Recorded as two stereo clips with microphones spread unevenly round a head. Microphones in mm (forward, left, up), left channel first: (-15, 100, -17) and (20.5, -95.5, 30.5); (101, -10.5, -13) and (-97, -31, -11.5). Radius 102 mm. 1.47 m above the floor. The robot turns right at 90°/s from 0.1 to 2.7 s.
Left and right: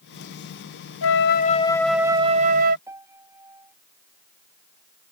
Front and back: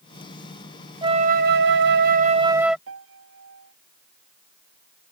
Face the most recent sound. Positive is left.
turn(degrees=-155)